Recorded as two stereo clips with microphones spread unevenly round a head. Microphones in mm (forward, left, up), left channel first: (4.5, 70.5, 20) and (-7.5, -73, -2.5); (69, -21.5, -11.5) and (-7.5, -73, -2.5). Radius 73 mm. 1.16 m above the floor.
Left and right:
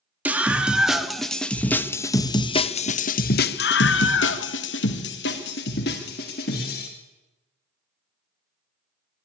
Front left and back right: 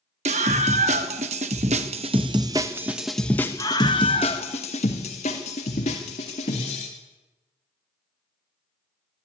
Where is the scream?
175° right, 2.5 m; by 6.9 s 55° left, 3 m.